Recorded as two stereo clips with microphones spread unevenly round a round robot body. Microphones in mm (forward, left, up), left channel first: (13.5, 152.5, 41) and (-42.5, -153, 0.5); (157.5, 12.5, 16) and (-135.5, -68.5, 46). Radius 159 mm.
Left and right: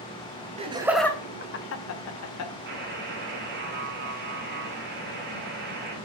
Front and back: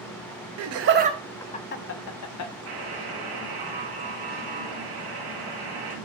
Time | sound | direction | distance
0.6 | laughter | 155° right | 0.7 m
2.7 | a buzzer | 155° right | 3 m